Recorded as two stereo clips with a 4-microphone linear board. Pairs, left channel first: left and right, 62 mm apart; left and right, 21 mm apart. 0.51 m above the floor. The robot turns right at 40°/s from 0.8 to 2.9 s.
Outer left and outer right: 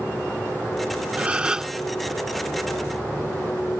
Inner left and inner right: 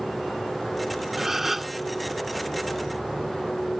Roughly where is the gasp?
Right.